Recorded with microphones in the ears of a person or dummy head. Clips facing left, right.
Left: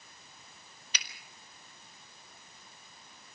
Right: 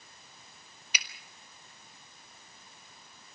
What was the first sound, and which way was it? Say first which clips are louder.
A finger snap: right 3 dB; 15° right (ahead or behind).